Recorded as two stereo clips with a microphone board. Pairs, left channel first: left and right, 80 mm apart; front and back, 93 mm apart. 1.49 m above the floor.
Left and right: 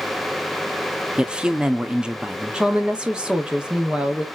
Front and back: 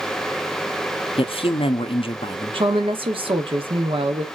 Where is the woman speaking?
170° right, 0.9 m.